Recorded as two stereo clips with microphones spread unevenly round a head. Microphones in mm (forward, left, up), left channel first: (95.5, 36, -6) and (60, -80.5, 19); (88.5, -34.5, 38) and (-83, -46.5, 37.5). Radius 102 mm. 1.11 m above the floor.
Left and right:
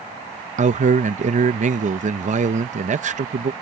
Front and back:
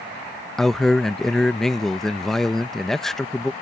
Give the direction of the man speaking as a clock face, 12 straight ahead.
3 o'clock.